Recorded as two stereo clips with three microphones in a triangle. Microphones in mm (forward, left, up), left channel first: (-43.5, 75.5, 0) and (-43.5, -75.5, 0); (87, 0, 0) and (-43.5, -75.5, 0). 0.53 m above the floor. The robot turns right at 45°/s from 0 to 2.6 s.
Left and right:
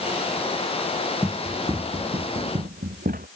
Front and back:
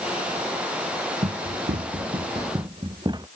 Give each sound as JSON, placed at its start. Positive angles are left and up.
{"t": 1.2, "sound": "running footsteps", "azimuth_deg": 175}